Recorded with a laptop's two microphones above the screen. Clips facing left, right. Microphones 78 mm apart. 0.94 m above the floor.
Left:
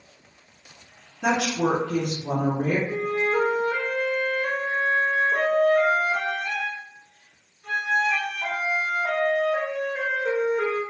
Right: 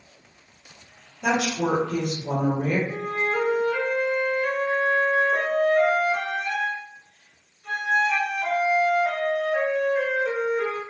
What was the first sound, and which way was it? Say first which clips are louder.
A woman speaking: left 1 dB; 70° left (ahead or behind).